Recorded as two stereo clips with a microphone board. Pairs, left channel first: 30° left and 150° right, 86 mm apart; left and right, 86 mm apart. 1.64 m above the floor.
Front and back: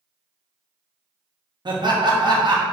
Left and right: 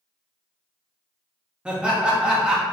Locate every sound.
1.6 s laughter: 170° right, 0.8 m